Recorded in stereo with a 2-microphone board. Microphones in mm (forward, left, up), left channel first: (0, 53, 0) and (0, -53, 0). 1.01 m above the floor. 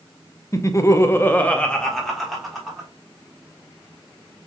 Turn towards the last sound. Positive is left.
turn(degrees=0)  # may be behind; listen again after turning